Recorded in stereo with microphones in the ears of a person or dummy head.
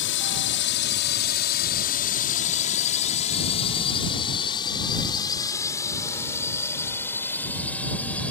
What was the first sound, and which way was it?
A drone, 60° left (ahead or behind).